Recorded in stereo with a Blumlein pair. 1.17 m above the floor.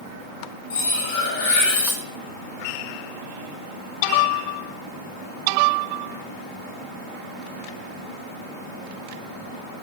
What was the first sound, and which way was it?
Cutlery clinking, 65° left.